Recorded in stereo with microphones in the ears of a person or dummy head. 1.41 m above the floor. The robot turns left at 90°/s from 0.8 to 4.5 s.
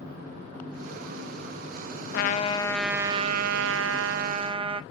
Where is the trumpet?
65° left, 0.6 m; by 4.8 s 150° right, 0.6 m.